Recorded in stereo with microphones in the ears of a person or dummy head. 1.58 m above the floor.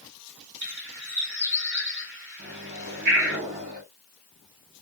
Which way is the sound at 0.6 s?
40° right (ahead or behind).